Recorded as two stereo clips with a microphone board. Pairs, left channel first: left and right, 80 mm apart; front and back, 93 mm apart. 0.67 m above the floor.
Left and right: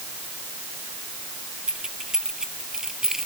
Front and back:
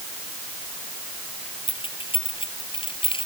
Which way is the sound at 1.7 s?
10° right.